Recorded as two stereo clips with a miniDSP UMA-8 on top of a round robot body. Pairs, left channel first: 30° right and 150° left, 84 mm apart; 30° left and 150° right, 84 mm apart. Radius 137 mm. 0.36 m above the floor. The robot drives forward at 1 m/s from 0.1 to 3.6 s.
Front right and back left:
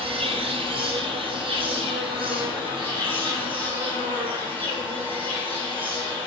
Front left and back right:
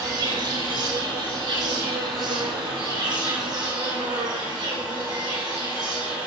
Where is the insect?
160° left, 0.7 m; by 6.3 s 175° left, 4 m.